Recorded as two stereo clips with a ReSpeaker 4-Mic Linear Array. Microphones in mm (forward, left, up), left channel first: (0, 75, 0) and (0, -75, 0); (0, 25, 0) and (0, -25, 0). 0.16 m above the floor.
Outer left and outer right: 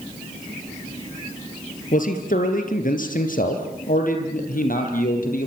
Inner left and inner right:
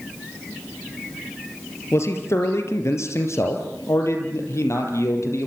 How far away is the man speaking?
About 3.5 m.